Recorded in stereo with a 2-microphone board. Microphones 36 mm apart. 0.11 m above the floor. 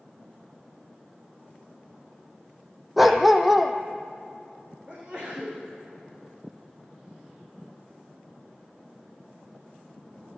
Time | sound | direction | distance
3.0 | a dog barking | 5° right (ahead or behind) | 1.6 m
4.9 | a sneeze | 25° right (ahead or behind) | 8 m